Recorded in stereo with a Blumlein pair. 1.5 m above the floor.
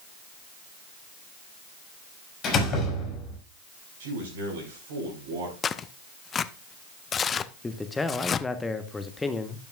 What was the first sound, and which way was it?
A door slam, 30° left.